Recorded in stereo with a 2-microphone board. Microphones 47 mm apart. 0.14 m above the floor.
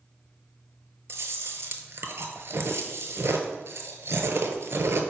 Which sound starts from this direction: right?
Chewing, at 1.1 s.